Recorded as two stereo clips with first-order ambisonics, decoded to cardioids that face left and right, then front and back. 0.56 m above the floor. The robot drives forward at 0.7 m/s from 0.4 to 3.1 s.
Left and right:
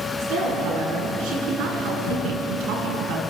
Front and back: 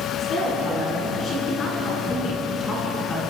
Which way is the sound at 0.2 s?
60° right.